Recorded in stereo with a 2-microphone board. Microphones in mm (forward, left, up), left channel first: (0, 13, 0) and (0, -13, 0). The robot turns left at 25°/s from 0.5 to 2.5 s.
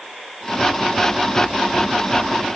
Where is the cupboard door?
No cupboard door in this recording.